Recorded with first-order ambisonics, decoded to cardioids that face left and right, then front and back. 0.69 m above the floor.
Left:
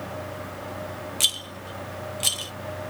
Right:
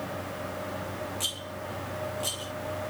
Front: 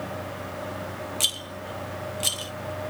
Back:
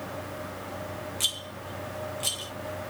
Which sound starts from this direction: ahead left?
A rattle, at 1.2 s.